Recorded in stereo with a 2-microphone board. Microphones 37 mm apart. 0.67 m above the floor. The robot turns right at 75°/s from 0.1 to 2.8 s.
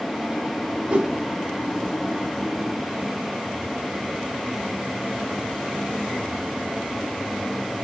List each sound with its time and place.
0.9 s a whoosh: 35° right (ahead or behind), 0.7 m; by 1.2 s 20° right (ahead or behind), 0.7 m